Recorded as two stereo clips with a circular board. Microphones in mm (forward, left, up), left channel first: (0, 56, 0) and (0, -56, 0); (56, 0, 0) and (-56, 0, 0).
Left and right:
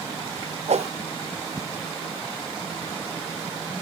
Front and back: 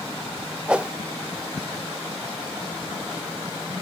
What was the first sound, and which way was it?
A whoosh, 100° right.